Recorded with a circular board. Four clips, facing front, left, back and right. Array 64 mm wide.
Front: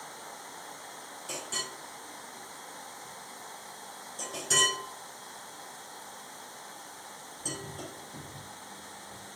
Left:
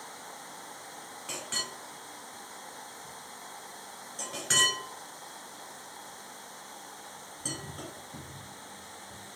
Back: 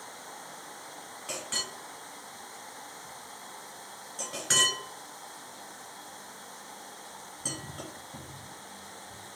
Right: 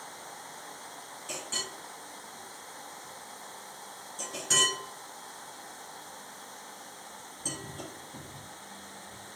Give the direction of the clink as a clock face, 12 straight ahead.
7 o'clock.